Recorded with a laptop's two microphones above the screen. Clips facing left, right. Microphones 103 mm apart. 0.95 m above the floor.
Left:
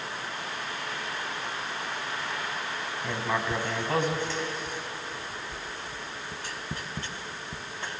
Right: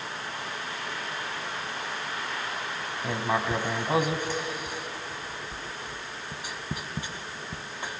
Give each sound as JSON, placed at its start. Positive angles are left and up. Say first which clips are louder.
{"t": 3.0, "sound": "writing", "louder": "right 2 dB", "side_deg": -15, "distance_m": 1.0}